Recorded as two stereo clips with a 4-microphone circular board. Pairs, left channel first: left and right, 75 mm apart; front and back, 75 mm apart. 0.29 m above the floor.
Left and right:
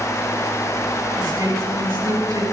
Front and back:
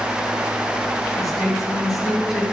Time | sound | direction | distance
1.2 | a woman speaking | 40° right | 4.5 m